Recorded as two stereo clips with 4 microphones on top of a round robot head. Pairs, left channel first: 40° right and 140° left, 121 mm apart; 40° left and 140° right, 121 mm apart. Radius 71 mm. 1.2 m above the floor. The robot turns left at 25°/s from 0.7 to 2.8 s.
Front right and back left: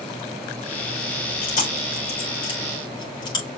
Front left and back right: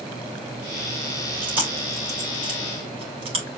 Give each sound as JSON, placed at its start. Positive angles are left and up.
{"t": 1.4, "sound": "chewing", "azimuth_deg": -60, "distance_m": 5.5}